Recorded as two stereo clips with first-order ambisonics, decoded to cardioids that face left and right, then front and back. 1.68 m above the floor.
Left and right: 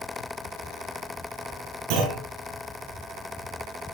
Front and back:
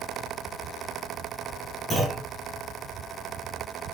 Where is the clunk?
85° right, 7 m.